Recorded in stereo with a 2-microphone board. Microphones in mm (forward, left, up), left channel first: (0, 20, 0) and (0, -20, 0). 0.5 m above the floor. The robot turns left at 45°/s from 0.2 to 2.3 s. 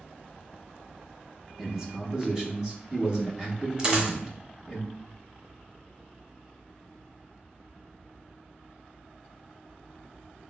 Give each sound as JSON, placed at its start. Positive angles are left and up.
{"t": 1.6, "sound": "a man speaking", "side_deg": -15, "distance_m": 0.7}
{"t": 3.8, "sound": "a dropped coin", "side_deg": -30, "distance_m": 0.8}